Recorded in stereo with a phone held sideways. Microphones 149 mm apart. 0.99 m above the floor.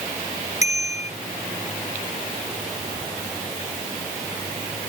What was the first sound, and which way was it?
A bicycle bell, 50° left (ahead or behind).